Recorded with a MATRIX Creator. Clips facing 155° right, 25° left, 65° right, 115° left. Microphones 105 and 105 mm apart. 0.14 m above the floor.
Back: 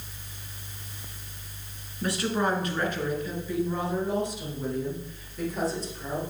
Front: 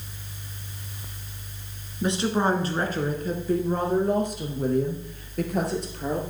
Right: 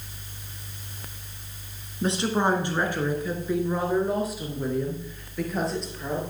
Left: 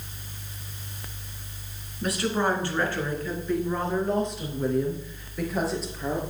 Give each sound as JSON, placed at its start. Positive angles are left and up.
{"t": 2.0, "sound": "a woman speaking", "azimuth_deg": -25, "distance_m": 1.6}